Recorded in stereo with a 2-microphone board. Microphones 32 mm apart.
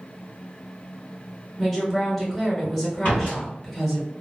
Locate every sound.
1.6 s a woman speaking: 10° left (ahead or behind), 1.3 m
3.0 s a door slam: 60° left (ahead or behind), 1.9 m